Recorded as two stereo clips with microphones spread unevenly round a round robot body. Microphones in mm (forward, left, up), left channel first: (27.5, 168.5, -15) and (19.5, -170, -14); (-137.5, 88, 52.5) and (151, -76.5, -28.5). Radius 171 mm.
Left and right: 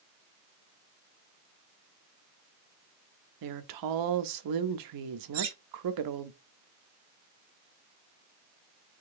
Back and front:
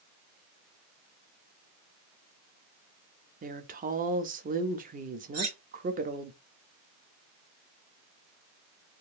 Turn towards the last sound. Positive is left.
turn(degrees=-80)